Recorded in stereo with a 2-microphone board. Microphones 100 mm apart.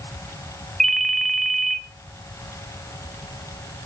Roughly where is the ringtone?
Centre.